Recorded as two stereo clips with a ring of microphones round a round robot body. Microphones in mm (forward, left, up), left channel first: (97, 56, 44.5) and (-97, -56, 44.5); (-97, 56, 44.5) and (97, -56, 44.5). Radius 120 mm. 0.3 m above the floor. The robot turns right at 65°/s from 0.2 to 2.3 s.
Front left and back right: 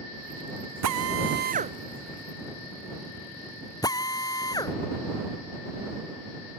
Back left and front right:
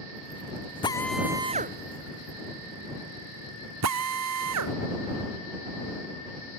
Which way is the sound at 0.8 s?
140° right.